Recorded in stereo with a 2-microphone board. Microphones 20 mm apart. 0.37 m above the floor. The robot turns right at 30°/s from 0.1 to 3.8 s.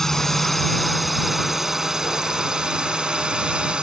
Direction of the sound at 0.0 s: 155° left.